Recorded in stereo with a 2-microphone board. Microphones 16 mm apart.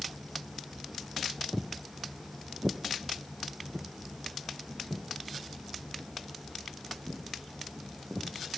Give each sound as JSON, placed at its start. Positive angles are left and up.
{"t": 1.5, "sound": "footsteps", "side_deg": -30, "distance_m": 0.5}